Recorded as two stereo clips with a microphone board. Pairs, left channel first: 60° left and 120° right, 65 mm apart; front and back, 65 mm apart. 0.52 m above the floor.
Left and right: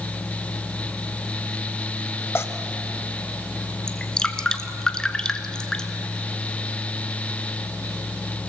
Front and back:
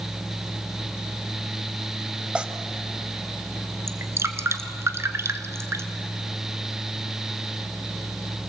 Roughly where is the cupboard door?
I don't hear a cupboard door.